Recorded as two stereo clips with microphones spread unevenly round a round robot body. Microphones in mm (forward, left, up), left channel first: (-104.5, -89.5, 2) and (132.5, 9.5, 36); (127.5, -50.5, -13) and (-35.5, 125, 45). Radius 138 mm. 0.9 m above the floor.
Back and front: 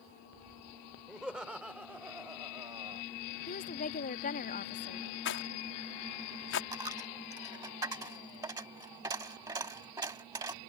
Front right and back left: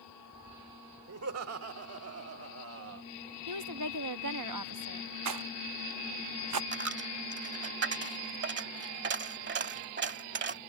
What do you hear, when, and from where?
1.1 s laughter: 110° left; by 3.0 s 95° left
3.5 s a woman speaking: 145° left
5.2 s a rattle: 160° left
6.7 s a dropped coin: 100° left